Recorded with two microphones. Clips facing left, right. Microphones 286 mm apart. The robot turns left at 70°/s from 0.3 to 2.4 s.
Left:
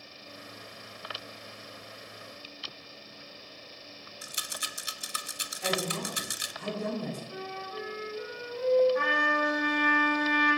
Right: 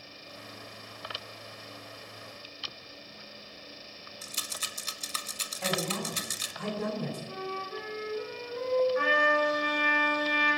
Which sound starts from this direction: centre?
A rattle, at 4.2 s.